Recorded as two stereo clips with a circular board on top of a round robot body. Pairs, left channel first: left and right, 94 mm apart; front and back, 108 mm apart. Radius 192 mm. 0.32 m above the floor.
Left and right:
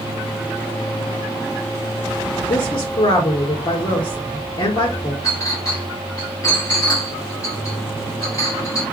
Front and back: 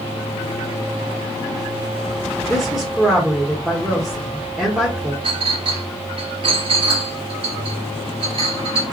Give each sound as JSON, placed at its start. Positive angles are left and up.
{"t": 2.5, "sound": "a woman speaking", "azimuth_deg": 95, "distance_m": 1.8}
{"t": 5.2, "sound": "a clink", "azimuth_deg": 145, "distance_m": 3.5}